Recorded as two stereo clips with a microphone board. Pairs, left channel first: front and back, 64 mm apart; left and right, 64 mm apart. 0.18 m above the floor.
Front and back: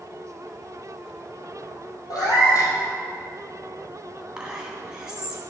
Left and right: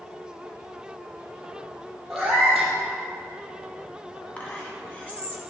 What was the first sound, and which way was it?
A cat meowing, 5° right.